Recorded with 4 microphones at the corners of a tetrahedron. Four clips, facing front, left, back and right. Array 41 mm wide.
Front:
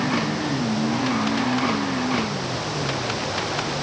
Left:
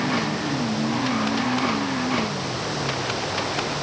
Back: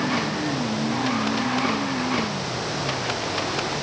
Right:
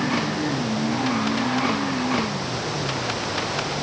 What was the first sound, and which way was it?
Only background noise.